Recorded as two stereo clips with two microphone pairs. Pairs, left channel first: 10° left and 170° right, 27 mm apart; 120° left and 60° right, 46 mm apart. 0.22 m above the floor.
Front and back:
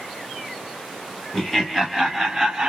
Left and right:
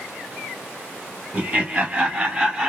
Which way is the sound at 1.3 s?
60° right.